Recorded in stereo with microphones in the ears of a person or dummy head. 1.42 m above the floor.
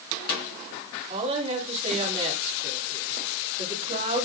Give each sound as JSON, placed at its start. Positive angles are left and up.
{"t": 1.1, "sound": "a woman speaking", "side_deg": -30, "distance_m": 3.5}